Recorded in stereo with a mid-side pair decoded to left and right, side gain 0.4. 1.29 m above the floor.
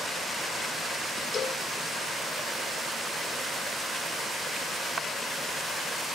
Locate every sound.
1.3 s a cowbell: 50° left, 1.3 m